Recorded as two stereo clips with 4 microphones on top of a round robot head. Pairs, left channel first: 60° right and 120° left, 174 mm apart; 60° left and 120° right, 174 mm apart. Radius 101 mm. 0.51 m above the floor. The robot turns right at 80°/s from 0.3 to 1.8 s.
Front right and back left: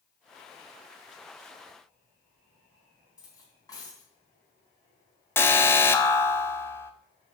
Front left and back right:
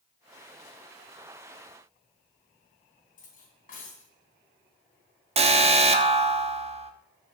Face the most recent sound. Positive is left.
turn(degrees=-125)